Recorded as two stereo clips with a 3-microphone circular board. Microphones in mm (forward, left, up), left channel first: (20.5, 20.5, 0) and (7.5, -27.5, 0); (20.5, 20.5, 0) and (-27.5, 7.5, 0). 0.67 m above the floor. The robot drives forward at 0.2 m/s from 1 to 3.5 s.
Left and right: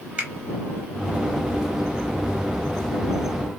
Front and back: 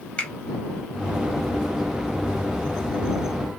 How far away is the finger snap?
About 1.0 m.